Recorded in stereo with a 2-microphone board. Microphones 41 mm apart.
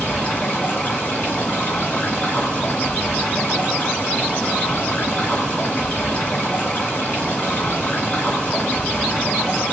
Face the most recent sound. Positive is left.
turn(degrees=40)  # may be behind; listen again after turning